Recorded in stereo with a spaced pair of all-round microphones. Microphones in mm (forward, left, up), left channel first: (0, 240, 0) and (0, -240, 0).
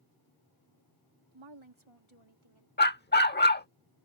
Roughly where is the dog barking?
Left.